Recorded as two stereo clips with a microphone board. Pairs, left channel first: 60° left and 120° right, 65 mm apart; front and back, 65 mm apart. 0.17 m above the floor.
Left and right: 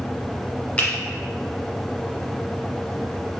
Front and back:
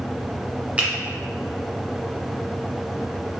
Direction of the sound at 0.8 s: 120° left.